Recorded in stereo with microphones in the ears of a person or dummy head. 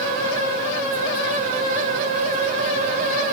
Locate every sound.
Only background noise.